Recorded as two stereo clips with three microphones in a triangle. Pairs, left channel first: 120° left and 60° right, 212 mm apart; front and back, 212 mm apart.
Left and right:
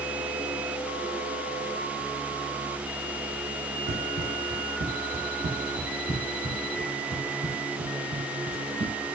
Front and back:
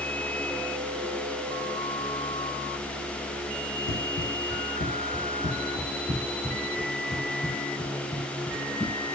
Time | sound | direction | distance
3.9 | running footsteps | 15° right | 0.6 m